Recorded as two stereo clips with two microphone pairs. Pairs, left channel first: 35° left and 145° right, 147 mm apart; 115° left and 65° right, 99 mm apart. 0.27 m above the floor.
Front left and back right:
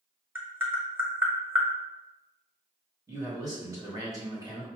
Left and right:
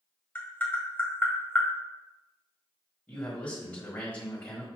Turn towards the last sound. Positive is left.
turn(degrees=180)